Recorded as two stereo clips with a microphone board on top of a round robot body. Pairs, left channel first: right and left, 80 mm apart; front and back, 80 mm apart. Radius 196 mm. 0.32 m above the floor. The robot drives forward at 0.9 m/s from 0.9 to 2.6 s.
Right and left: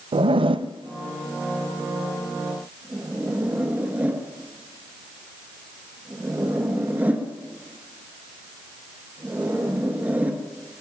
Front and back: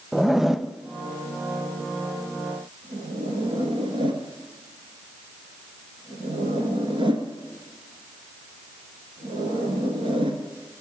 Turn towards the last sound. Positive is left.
turn(degrees=160)